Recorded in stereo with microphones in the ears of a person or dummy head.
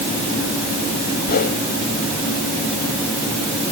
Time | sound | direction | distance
1.3 | a whoosh | 45° left (ahead or behind) | ?